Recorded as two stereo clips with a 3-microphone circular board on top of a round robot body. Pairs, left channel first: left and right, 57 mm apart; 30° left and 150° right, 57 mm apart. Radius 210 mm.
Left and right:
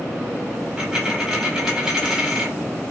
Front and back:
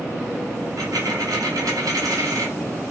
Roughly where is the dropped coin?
Behind.